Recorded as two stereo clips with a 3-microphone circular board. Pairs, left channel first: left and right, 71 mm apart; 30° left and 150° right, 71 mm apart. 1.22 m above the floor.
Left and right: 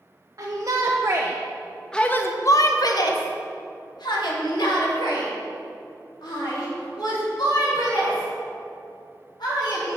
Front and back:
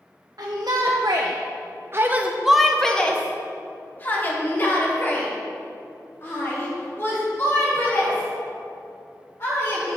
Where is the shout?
125° right, 1.0 m; by 10.0 s 85° left, 5 m.